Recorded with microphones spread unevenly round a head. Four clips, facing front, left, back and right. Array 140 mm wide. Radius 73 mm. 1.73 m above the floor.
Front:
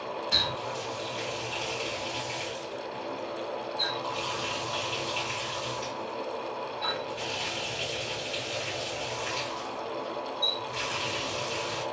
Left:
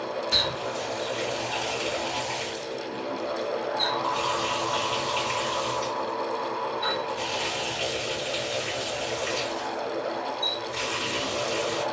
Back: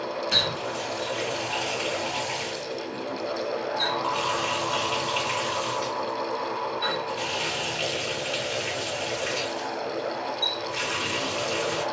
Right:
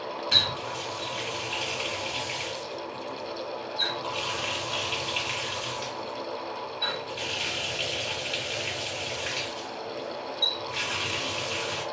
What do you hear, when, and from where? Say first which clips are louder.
0.3 s a running tap: left 3 dB, back 4 dB; 125° right, 1.5 m